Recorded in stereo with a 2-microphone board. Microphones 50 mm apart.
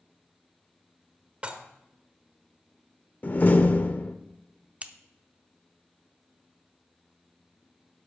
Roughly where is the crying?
No crying in this recording.